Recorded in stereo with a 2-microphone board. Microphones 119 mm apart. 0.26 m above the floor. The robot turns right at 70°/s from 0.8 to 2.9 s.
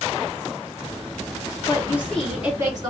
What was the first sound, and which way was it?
A woman speaking, 140° left.